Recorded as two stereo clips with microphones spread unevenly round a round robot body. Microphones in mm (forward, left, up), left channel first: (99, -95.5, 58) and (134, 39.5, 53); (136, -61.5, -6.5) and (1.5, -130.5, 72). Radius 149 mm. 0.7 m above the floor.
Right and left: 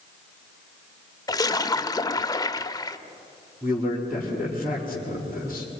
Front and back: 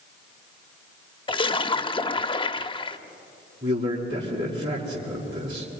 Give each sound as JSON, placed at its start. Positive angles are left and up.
{"t": 1.3, "sound": "a splash", "azimuth_deg": -40, "distance_m": 0.9}
{"t": 3.6, "sound": "a man speaking", "azimuth_deg": 155, "distance_m": 5.0}